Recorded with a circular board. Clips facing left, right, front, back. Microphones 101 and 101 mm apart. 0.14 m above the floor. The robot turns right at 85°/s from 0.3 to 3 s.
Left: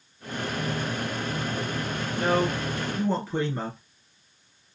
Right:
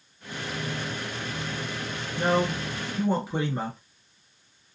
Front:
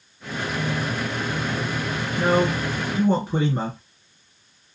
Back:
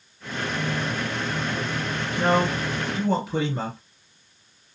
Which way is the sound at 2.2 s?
95° right.